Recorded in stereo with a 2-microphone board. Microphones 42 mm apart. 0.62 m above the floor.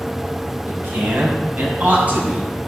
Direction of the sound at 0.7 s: 50° right (ahead or behind).